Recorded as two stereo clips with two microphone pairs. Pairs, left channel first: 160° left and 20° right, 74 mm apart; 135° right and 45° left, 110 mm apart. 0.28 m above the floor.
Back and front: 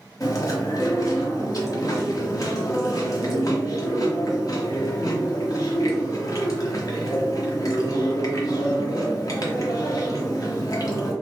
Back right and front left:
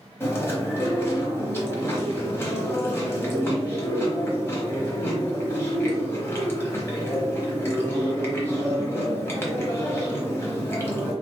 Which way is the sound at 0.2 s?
160° left.